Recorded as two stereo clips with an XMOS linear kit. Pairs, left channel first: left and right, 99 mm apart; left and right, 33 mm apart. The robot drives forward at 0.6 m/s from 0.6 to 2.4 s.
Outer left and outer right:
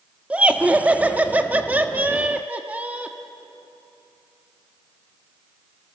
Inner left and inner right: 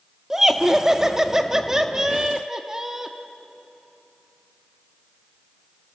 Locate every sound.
0.3 s laughter: 15° right (ahead or behind), 1.4 m